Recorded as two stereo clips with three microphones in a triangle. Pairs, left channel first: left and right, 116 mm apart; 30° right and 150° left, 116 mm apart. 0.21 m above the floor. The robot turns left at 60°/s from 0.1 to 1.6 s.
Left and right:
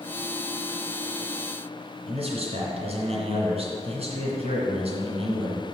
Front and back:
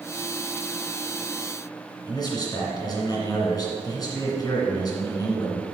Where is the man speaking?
80° right, 2.5 m.